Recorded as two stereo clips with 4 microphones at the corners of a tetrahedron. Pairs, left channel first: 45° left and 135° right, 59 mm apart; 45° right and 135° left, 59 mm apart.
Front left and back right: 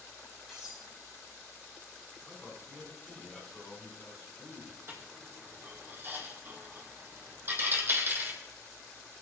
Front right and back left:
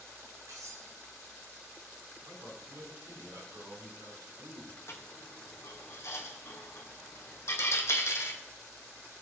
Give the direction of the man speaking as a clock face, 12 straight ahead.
7 o'clock.